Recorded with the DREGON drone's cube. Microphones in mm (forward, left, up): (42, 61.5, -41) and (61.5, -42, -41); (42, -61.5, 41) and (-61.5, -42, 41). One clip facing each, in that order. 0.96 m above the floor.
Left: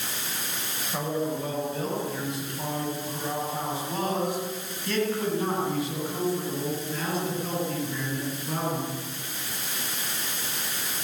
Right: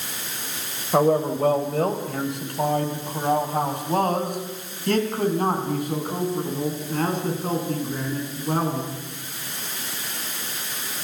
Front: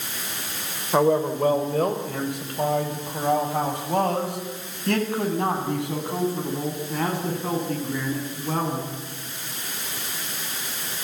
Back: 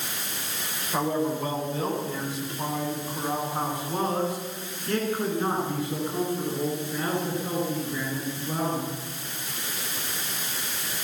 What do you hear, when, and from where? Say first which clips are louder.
0.9 s a man speaking: right 10 dB, front 6 dB; 55° right, 3.5 m; by 8.9 s 30° right, 10 m